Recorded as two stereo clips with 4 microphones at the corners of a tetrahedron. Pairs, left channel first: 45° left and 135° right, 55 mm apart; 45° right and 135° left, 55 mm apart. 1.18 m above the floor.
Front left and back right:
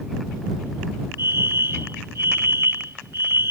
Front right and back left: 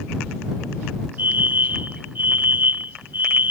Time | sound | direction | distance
1.2 | a fire alarm | 170° right | ?